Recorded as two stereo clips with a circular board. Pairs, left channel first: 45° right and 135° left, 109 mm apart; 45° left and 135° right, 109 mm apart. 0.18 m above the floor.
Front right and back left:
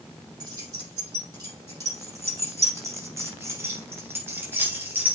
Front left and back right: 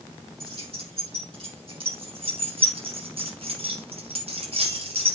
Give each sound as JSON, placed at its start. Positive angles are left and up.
{"t": 0.4, "sound": "keys jangling", "azimuth_deg": -170, "distance_m": 4.5}